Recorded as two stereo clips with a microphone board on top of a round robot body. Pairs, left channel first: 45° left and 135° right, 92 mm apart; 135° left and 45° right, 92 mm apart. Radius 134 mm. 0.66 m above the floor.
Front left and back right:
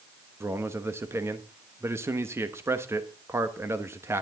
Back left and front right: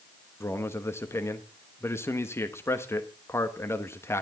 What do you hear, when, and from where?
0.4 s a man speaking: straight behind, 1.3 m